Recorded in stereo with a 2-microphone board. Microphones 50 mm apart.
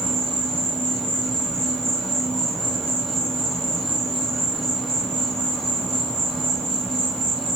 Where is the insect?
10° left (ahead or behind), 0.8 m.